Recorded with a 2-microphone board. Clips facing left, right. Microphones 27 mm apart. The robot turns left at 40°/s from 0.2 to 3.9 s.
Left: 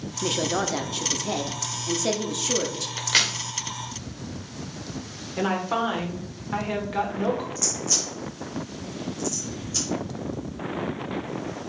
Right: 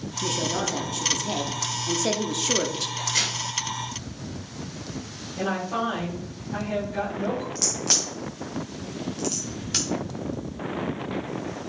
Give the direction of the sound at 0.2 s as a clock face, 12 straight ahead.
10 o'clock.